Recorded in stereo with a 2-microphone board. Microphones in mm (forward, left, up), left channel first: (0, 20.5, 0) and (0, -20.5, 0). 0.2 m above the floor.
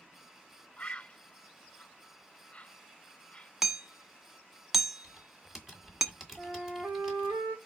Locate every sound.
0.8 s a bird: 30° left (ahead or behind), 0.6 m
3.6 s hammering: 10° right (ahead or behind), 1.1 m
5.0 s typing on a keyboard: 10° right (ahead or behind), 2 m
6.4 s a flute: 50° right (ahead or behind), 2 m